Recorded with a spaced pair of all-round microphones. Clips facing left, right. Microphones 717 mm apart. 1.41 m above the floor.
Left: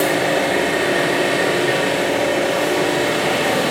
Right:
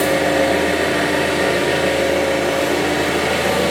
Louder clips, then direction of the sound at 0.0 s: Right 2 dB; 55° right (ahead or behind).